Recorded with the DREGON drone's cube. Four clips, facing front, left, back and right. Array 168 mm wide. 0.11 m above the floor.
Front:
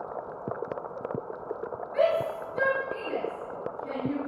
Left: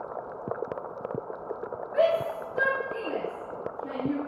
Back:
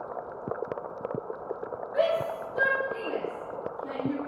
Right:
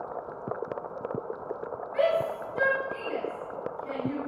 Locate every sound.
1.9 s a shout: 130° left, 2 m